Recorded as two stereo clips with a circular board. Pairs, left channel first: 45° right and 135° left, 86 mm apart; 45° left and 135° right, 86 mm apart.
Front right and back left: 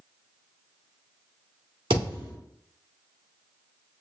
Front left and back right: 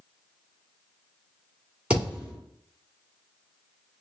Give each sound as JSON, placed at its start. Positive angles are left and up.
{"t": 1.9, "sound": "a thud", "azimuth_deg": 145, "distance_m": 2.5}